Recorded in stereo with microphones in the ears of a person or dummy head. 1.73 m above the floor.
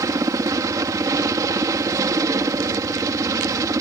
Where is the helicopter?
15° right (ahead or behind).